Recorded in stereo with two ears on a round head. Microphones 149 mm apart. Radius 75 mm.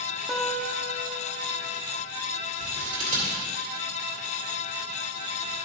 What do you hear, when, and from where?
0.3 s a guitar: centre (ahead or behind), 1.1 m
2.6 s scissors: 45° right (ahead or behind), 2.5 m